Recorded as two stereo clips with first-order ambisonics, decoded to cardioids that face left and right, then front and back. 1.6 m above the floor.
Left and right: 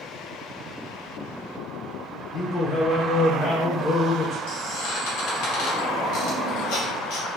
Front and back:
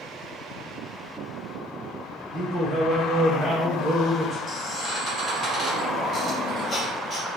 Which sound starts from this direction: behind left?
A man speaking, at 2.3 s.